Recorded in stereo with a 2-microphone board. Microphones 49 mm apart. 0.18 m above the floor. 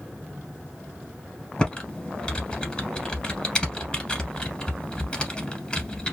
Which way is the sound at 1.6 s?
20° left (ahead or behind).